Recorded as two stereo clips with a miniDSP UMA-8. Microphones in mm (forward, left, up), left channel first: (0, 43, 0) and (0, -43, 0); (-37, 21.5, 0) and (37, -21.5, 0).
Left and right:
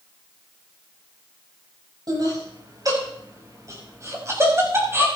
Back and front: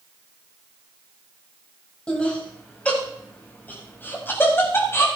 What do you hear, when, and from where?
2.1 s laughter: 130° right, 6 m; by 5.0 s 150° right, 6 m